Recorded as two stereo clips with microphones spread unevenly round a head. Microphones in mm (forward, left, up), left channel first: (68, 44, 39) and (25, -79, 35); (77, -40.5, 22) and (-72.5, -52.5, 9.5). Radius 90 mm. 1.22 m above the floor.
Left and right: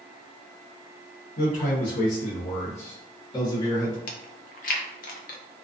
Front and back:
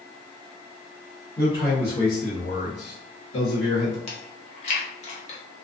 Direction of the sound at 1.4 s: 95° left.